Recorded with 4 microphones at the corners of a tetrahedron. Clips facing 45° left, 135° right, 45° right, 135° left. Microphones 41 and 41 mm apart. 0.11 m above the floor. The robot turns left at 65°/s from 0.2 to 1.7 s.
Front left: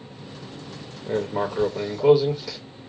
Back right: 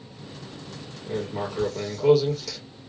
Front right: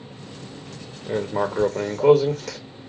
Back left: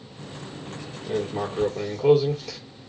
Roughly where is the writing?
Ahead.